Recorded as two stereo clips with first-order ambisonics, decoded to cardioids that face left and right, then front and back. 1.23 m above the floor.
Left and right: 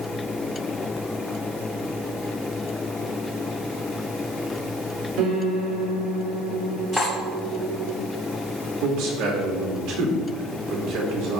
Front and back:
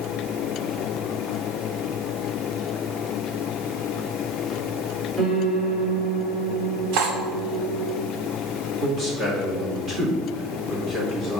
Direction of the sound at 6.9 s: 175° right.